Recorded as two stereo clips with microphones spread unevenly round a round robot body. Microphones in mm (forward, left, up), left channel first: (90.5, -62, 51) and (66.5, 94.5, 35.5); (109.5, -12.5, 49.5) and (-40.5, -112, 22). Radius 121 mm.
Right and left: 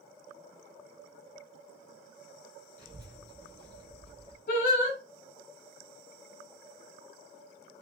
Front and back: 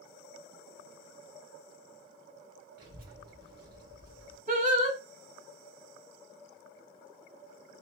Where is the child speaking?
165° right, 2.5 m.